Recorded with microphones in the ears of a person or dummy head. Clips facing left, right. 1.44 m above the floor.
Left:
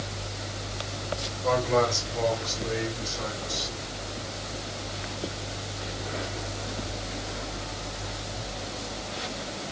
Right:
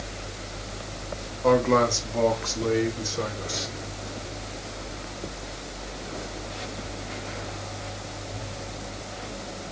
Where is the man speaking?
65° right (ahead or behind), 1.2 m; by 3.7 s 75° right (ahead or behind), 2.5 m.